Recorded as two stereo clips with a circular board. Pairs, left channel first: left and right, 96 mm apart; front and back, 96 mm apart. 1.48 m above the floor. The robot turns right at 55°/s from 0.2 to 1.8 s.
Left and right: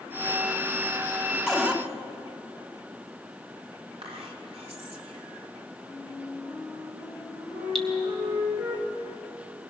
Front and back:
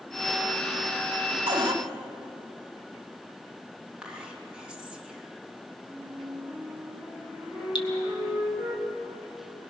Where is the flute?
105° right, 9 m.